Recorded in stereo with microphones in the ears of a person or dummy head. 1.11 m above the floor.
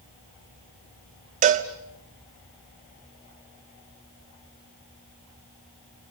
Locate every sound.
1.4 s a cowbell: 45° right (ahead or behind), 1.2 m